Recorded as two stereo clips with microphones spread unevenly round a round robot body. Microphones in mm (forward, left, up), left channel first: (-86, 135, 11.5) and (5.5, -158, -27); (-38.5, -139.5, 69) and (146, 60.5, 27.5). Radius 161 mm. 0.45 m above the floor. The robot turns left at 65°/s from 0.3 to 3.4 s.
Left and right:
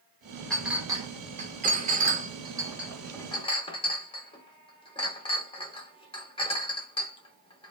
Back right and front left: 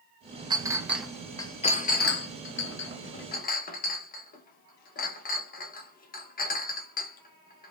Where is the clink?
10° left, 0.7 m; by 7.7 s straight behind, 0.7 m.